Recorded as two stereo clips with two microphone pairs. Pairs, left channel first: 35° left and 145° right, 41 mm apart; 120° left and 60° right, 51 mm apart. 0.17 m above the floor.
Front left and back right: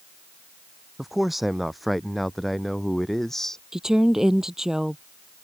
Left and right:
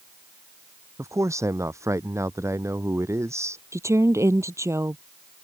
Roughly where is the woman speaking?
Ahead right.